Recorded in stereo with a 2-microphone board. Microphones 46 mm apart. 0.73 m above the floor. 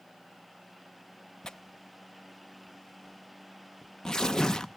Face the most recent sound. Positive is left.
turn(degrees=15)  # may be behind; listen again after turning